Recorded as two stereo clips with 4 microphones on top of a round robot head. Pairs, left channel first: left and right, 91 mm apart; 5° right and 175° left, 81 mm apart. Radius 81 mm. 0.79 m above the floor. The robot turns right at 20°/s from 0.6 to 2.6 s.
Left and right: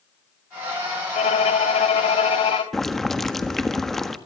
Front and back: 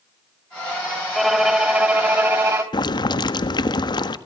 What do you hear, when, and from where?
1.1 s a violin: 85° left, 1.8 m; by 2.6 s 115° left, 1.8 m
2.7 s boiling: 5° left, 1.4 m